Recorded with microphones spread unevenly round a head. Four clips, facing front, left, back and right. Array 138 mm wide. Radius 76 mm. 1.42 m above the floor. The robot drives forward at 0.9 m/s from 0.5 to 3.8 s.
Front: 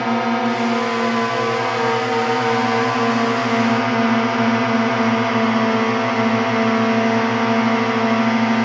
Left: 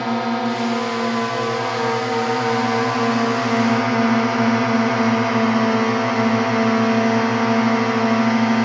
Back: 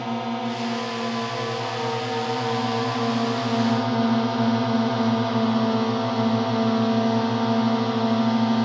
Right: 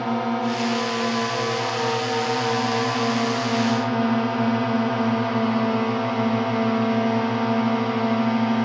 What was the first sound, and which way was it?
A drone, 15° left.